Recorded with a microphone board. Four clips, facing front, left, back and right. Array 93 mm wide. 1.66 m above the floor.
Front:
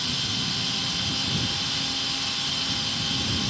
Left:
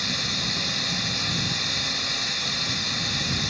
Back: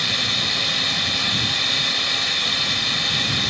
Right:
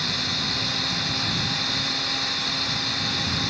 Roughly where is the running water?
Behind.